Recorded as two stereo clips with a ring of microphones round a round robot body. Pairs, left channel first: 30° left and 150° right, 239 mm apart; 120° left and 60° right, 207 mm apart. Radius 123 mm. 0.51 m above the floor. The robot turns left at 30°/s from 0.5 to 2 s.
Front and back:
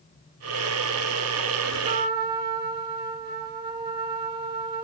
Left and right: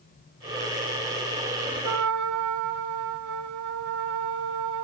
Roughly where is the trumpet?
Right.